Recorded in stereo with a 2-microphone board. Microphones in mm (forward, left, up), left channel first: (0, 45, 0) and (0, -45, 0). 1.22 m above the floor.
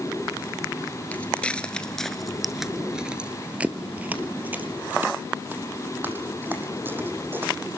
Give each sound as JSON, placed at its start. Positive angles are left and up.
{"t": 1.1, "sound": "footsteps", "side_deg": 15, "distance_m": 1.4}